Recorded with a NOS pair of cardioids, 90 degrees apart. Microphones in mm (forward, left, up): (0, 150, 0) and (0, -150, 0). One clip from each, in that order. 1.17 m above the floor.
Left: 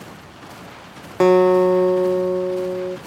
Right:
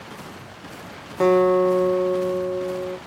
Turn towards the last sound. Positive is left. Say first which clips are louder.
# left 3 dB
turn(degrees=30)